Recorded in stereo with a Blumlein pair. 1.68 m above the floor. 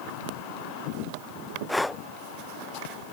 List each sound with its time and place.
1.7 s breathing: straight ahead